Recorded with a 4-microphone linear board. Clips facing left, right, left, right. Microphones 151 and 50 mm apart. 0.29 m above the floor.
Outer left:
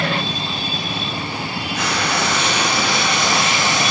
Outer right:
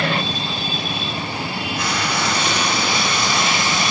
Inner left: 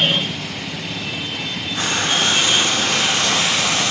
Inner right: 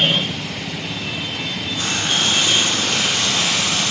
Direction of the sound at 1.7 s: 85° left.